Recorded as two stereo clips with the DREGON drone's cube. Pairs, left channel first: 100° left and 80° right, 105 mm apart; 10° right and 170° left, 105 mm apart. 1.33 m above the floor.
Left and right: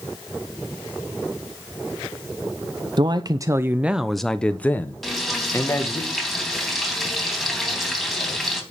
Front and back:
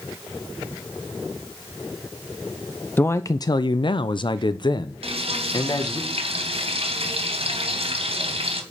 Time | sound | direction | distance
3.0 | a man speaking | 80° right | 0.6 m
5.0 | frying | 170° right | 3 m